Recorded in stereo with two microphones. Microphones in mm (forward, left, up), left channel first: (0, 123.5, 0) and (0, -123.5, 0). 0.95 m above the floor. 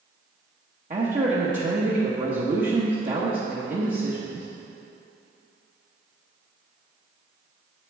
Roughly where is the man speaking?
Right.